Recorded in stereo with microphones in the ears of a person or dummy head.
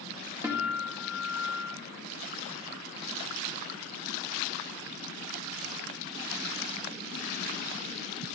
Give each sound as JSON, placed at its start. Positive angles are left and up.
{"t": 0.4, "sound": "a guitar", "side_deg": -15, "distance_m": 1.9}